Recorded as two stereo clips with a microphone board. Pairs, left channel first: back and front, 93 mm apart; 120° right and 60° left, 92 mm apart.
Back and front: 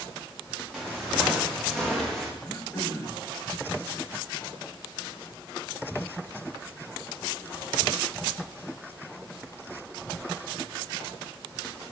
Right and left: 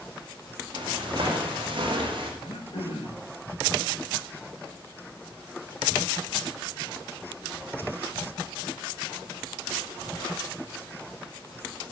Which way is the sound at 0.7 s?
95° left.